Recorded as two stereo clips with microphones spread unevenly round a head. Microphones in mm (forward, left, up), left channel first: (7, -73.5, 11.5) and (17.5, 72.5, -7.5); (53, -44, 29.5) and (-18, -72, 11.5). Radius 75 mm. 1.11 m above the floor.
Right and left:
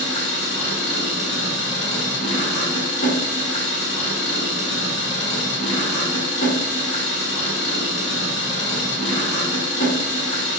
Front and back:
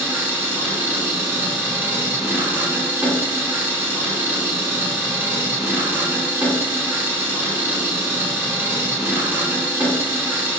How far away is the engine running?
About 1.3 m.